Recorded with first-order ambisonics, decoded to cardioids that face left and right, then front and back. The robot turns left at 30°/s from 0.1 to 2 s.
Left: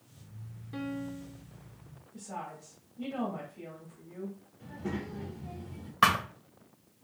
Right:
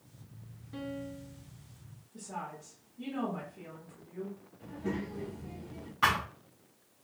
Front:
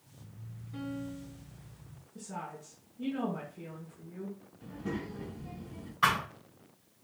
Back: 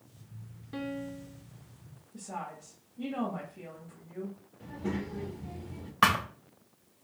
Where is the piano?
160° left, 0.5 m; by 1.4 s 140° left, 0.5 m.